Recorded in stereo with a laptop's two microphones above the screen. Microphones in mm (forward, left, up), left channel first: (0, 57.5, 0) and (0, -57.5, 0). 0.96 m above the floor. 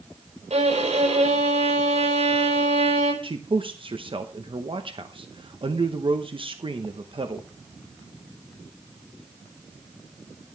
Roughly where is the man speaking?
Right.